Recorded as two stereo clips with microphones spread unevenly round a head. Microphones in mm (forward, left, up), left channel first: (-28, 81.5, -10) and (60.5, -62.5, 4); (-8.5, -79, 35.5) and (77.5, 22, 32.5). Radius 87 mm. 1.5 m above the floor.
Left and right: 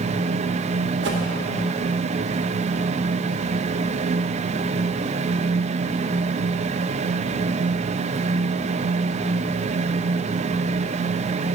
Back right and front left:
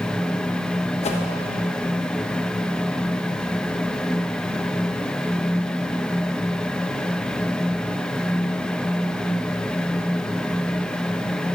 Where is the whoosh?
90° right, 0.9 m.